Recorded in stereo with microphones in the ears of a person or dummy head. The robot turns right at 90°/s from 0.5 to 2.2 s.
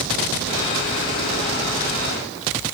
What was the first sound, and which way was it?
Only background noise.